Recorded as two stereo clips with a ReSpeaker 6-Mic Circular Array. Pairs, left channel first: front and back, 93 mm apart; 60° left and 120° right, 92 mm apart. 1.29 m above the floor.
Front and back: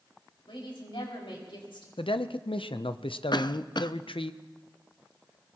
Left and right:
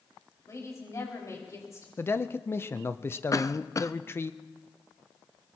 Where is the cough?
15° left, 0.5 m.